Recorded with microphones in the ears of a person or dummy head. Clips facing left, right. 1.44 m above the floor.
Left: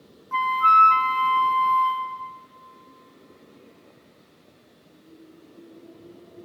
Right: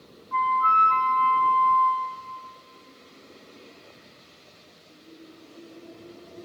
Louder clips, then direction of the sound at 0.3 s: Left 2 dB; 45° left (ahead or behind).